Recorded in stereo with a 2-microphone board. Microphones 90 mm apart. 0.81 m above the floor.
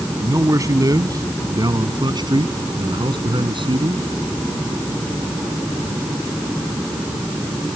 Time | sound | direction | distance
0.2 | a man speaking | 35° right (ahead or behind) | ?